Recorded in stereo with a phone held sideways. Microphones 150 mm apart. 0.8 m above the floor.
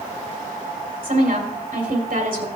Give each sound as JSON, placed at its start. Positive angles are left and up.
{"t": 1.0, "sound": "a woman speaking", "side_deg": -70, "distance_m": 2.5}